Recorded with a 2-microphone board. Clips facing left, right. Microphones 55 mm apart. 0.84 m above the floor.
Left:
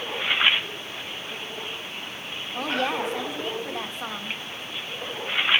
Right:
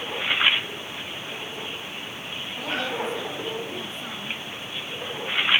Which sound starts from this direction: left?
A woman speaking, at 2.5 s.